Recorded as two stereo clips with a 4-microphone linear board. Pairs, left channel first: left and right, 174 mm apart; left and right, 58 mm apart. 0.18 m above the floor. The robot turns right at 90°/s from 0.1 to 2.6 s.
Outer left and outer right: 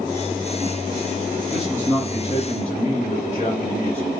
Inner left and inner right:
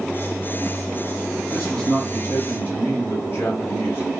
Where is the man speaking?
10° right, 1.2 m; by 4.1 s 90° left, 1.2 m.